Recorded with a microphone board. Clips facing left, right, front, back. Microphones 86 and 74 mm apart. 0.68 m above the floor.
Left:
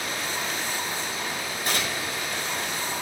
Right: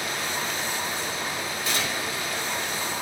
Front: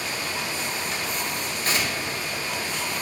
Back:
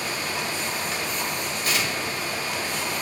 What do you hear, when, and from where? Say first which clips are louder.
1.6 s tearing paper: left 1 dB, even; 50° left, 3 m